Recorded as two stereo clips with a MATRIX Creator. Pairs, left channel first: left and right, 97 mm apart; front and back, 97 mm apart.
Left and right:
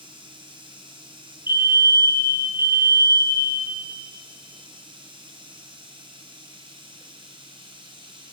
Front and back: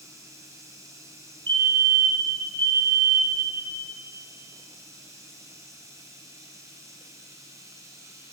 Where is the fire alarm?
150° right, 5.5 m.